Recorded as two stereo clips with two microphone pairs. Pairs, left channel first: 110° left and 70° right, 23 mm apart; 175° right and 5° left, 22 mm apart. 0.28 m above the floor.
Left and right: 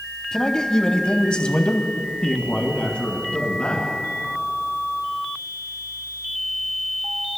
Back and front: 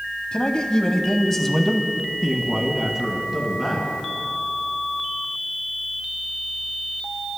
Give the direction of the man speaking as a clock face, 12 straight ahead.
6 o'clock.